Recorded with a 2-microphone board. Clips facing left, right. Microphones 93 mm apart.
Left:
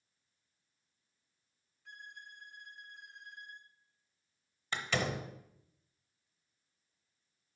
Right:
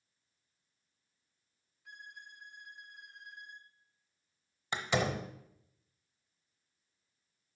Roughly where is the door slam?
Centre.